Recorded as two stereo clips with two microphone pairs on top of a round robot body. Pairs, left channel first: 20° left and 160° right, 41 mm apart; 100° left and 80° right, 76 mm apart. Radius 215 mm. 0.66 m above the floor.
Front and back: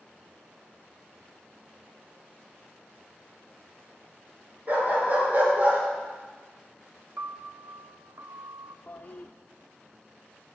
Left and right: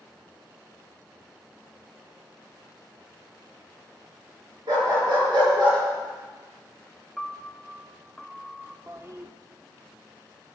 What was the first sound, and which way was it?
A dog barking, 110° right.